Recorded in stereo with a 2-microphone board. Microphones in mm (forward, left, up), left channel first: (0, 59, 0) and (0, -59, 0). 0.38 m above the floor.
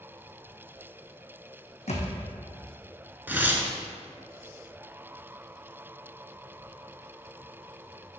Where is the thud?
70° left (ahead or behind), 1.1 m.